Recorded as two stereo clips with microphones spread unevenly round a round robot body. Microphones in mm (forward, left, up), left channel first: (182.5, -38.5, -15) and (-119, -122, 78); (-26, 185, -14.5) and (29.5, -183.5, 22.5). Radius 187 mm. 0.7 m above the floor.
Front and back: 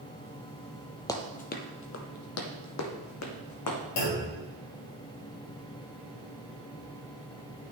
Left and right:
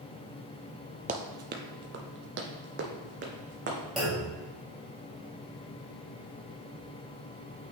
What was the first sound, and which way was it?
Running footsteps, 90° right.